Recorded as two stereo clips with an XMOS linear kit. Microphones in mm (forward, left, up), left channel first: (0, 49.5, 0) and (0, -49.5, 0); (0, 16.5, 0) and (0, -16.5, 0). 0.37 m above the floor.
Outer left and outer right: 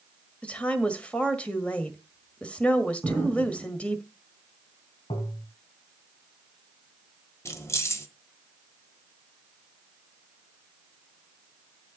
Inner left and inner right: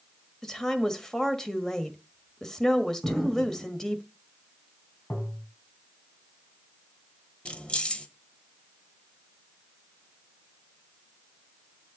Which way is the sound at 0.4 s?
15° left (ahead or behind).